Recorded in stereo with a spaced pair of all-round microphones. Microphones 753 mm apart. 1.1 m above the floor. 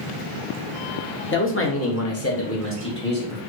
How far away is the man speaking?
About 0.6 m.